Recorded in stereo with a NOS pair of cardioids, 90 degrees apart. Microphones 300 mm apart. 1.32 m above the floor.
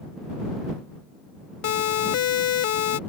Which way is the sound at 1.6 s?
65° left.